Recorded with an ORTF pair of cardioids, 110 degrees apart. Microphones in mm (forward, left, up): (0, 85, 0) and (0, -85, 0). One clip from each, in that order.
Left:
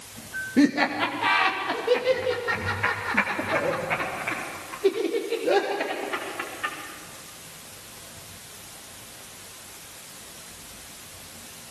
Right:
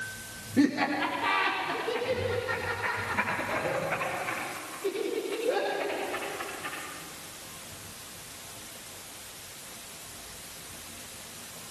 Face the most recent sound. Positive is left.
turn(degrees=70)